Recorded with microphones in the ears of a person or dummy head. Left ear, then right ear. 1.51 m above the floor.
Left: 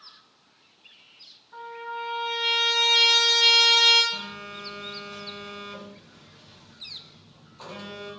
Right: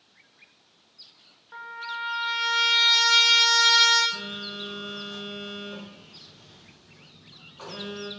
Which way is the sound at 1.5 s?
40° right (ahead or behind).